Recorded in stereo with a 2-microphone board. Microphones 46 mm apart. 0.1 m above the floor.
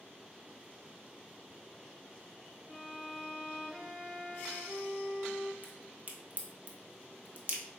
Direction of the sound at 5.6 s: 35° right (ahead or behind).